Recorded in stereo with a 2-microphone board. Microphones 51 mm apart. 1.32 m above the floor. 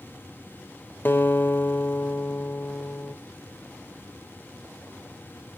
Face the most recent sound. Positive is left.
turn(degrees=40)  # may be behind; listen again after turning